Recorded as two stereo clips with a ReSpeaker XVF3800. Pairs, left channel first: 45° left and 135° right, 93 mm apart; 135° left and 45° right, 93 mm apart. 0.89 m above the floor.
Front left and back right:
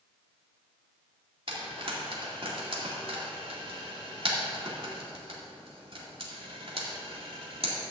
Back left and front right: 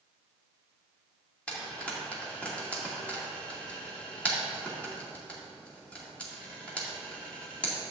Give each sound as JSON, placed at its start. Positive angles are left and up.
{"t": 1.5, "sound": "frying", "azimuth_deg": -150, "distance_m": 2.5}